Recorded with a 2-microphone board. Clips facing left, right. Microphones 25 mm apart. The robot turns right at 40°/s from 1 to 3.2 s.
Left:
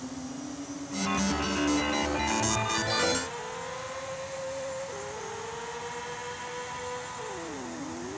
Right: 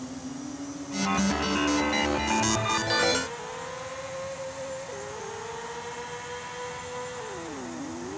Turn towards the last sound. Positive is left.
No sound to turn to.